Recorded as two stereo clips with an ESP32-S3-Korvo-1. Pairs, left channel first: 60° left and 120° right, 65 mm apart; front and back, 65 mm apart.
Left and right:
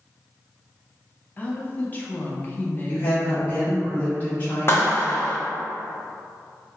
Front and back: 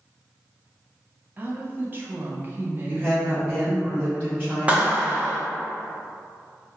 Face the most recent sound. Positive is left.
turn(degrees=110)